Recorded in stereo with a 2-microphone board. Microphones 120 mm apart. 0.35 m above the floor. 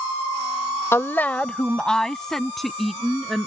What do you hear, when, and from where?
0.9 s a woman speaking: 20° left (ahead or behind); by 3.5 s centre (ahead or behind)